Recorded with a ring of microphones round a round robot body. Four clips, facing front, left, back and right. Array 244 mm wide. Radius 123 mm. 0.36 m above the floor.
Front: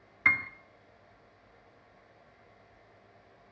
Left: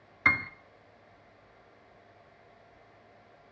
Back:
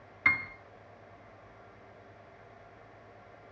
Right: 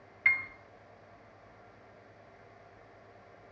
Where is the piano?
90° left, 1.3 m.